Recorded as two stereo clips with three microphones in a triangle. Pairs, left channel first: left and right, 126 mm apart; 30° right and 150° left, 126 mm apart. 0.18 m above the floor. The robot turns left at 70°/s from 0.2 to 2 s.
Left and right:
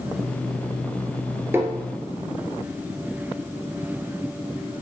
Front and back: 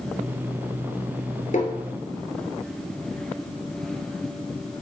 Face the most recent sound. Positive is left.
turn(degrees=-50)